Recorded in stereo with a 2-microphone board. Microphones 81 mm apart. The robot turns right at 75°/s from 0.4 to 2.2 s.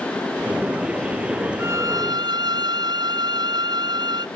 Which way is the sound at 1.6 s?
145° right.